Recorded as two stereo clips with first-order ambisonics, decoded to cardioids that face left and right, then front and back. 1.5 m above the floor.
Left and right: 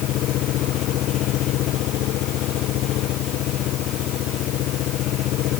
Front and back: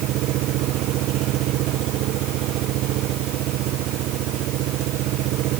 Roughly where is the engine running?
Behind left.